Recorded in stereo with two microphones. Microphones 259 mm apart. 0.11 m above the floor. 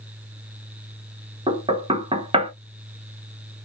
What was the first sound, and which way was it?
Knocking, 20° right (ahead or behind).